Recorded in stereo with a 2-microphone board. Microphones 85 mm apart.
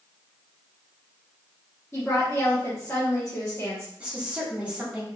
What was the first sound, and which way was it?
A woman speaking, 35° left (ahead or behind).